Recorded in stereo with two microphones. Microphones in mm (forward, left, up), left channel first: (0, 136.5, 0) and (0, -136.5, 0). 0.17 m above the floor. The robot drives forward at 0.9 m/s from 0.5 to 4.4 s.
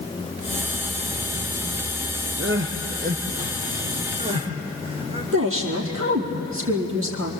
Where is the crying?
45° right (ahead or behind), 1.5 m; by 5.2 s 20° right (ahead or behind), 3 m.